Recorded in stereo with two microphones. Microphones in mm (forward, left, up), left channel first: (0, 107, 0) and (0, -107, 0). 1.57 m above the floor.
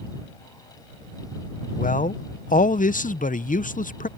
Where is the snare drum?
I don't hear a snare drum.